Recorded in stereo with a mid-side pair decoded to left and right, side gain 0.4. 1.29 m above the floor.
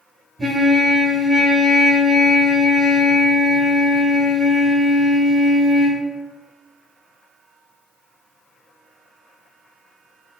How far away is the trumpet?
About 1.5 m.